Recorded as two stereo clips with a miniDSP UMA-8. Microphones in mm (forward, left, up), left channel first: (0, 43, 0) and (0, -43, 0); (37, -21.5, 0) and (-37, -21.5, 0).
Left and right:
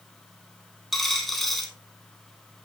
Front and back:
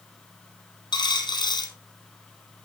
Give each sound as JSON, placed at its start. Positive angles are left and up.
{"t": 0.9, "sound": "a dropped coin", "azimuth_deg": 0, "distance_m": 3.0}